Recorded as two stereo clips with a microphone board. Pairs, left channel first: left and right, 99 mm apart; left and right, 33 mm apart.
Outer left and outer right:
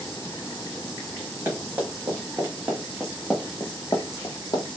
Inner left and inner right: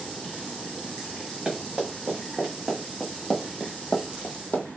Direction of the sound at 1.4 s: 25° right (ahead or behind).